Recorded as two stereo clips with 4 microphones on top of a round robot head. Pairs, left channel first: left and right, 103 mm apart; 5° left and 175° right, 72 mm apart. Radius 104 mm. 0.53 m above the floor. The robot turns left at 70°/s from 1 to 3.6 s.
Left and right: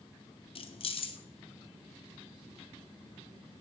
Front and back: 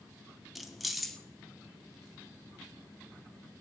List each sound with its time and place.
0.6 s keys jangling: 95° left, 0.9 m; by 1.2 s 80° left, 0.9 m